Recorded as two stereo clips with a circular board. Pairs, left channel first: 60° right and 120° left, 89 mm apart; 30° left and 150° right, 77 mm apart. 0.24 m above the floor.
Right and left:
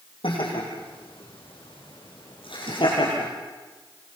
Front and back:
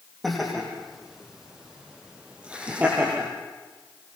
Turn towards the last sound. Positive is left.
turn(degrees=-85)